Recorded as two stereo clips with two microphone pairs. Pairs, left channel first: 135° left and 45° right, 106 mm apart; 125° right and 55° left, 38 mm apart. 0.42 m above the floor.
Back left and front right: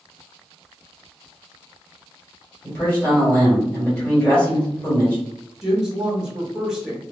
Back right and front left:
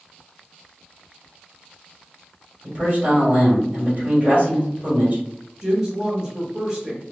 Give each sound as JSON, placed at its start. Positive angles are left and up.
{"t": 2.6, "sound": "a man speaking", "azimuth_deg": 65, "distance_m": 1.8}
{"t": 5.6, "sound": "a woman speaking", "azimuth_deg": 25, "distance_m": 0.8}